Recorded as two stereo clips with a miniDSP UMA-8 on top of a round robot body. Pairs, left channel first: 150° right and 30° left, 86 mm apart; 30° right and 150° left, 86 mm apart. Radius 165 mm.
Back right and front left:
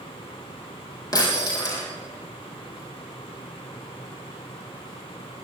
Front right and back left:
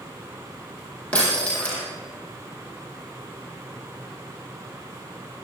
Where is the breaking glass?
105° right, 7 m.